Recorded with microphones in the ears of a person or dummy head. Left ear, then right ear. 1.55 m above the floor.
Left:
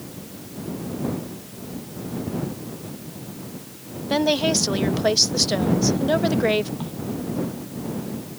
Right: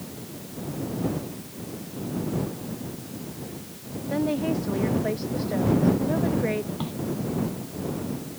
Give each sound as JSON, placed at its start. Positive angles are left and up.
{"t": 4.1, "sound": "a woman speaking", "side_deg": 80}
{"t": 6.8, "sound": "a crack", "side_deg": -20}